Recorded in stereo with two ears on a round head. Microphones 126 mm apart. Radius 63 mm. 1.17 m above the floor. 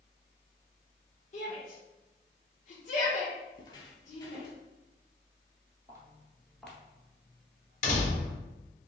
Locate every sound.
1.3 s a shout: 55° left (ahead or behind), 1.0 m
3.5 s footsteps: 30° left (ahead or behind), 1.3 m; by 4.6 s 20° left (ahead or behind), 1.3 m
5.9 s footsteps: 25° right (ahead or behind), 1.2 m; by 8.4 s 50° left (ahead or behind), 1.8 m
7.8 s a door slam: 55° left (ahead or behind), 1.4 m